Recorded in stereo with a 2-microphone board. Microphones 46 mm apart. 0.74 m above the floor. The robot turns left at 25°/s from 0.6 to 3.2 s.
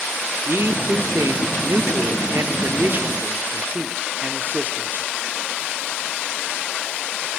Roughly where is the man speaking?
Ahead right.